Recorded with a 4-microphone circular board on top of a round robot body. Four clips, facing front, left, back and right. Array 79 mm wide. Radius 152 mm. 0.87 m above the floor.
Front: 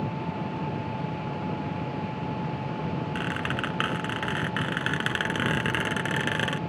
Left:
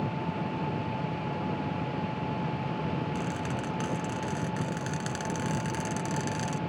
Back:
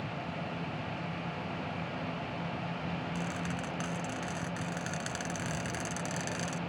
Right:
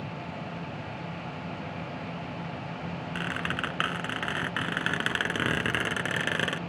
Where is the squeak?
45° right.